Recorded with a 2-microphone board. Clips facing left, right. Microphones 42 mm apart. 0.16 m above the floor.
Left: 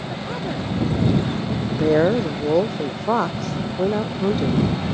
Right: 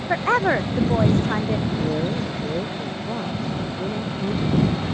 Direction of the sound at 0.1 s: 85° right.